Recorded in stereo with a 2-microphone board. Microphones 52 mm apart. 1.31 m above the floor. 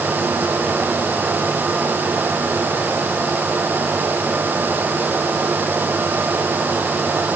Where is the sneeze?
No sneeze in this recording.